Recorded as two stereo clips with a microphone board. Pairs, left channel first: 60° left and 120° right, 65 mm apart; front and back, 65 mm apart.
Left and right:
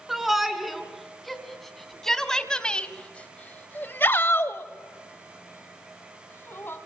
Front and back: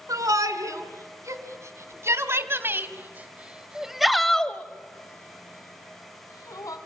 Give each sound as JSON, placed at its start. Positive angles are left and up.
{"t": 0.1, "sound": "a shout", "azimuth_deg": 155, "distance_m": 3.0}